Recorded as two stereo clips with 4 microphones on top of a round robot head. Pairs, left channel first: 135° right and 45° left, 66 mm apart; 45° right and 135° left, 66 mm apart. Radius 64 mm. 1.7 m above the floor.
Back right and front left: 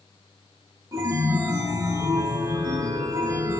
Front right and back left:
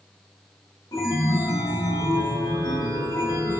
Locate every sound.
0.9 s a chime: 5° right, 4 m